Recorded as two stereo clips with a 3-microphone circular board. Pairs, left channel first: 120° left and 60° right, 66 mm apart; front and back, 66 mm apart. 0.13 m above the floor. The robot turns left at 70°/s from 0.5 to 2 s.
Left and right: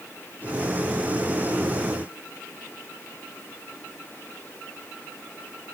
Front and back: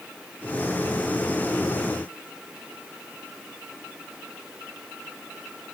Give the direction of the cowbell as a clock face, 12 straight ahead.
I don't hear a cowbell.